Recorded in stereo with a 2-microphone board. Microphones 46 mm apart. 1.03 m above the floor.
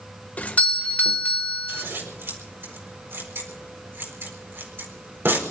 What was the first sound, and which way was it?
A doorbell, 35° left (ahead or behind).